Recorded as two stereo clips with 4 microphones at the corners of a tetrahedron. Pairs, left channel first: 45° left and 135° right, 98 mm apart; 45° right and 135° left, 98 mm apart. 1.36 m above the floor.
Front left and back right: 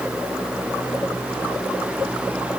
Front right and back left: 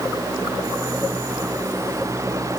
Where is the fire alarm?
No fire alarm in this recording.